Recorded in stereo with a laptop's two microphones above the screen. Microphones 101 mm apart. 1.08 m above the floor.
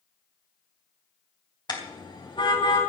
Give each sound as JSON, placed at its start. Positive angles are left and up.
{"t": 1.7, "sound": "a car horn", "side_deg": 45, "distance_m": 4.0}